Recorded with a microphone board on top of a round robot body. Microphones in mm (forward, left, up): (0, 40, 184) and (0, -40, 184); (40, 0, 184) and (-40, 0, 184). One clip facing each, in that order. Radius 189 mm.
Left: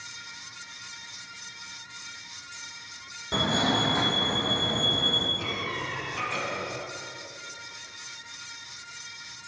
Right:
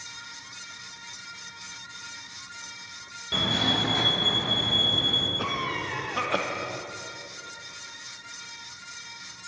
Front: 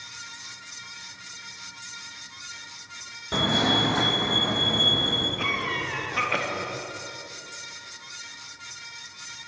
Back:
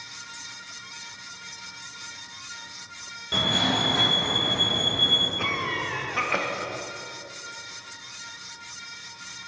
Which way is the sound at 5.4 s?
95° right.